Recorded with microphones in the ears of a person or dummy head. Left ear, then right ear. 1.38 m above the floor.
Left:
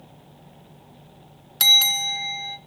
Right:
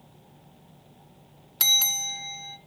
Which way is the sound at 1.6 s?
Centre (ahead or behind).